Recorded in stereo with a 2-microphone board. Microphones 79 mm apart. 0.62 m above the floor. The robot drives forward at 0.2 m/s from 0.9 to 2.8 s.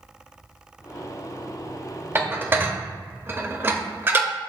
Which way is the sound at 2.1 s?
25° right (ahead or behind).